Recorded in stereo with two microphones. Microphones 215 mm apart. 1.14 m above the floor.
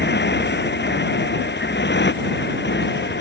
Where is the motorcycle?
60° left (ahead or behind).